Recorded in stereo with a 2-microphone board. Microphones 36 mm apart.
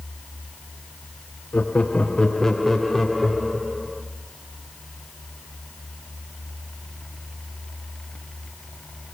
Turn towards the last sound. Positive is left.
turn(degrees=-15)  # may be behind; listen again after turning